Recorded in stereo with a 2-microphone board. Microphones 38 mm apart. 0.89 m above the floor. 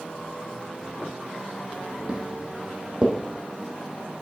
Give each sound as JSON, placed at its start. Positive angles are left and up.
{"t": 2.1, "sound": "footsteps", "side_deg": -30, "distance_m": 1.5}